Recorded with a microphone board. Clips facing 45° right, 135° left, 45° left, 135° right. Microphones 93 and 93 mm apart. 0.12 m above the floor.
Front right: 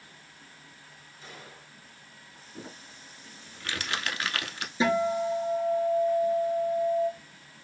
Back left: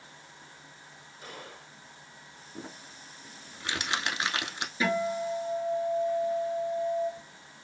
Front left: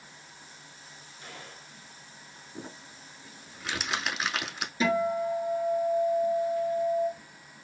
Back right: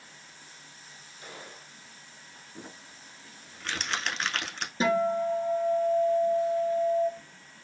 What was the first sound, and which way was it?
A gunshot, 150° left.